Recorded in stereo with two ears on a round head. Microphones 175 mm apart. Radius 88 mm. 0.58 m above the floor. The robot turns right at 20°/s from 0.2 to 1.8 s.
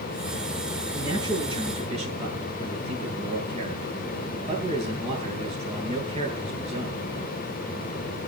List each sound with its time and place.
0.9 s a man speaking: 15° right (ahead or behind), 8.5 m; by 7.1 s 35° right (ahead or behind), 8.5 m